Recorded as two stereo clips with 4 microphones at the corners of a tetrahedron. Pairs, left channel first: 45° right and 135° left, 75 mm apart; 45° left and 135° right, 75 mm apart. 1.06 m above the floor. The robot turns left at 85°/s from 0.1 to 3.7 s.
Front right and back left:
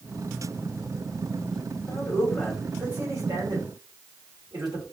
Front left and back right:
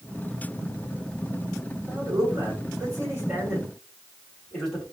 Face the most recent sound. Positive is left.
turn(degrees=125)